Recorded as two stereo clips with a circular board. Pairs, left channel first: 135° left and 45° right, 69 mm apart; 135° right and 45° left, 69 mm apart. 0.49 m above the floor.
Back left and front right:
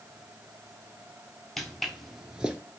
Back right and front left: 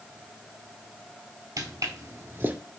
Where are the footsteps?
50° left, 0.8 m; by 2.6 s 10° left, 0.5 m.